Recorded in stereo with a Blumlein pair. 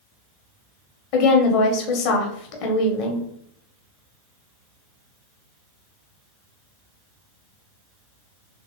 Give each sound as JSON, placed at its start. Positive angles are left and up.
{"t": 1.1, "sound": "a woman speaking", "azimuth_deg": 45, "distance_m": 1.1}